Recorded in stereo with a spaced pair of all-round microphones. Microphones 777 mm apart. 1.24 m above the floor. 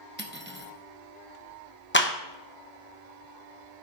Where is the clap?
15° left (ahead or behind), 0.8 m.